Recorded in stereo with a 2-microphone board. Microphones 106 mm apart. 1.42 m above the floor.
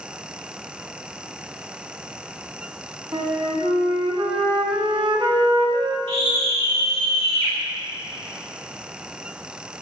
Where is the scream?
80° right, 3 m.